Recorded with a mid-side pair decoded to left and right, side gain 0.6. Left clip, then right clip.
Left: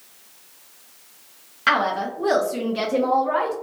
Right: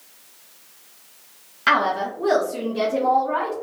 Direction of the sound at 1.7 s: 5° left.